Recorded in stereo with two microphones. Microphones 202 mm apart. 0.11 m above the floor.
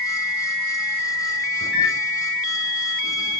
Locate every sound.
1.6 s a microwave: 60° left (ahead or behind), 3 m